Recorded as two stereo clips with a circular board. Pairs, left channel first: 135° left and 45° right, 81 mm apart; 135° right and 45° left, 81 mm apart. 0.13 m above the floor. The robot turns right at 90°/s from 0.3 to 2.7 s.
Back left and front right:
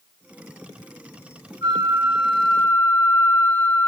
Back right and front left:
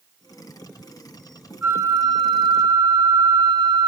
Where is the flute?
25° right, 7.5 m; by 3.9 s 75° left, 7.5 m.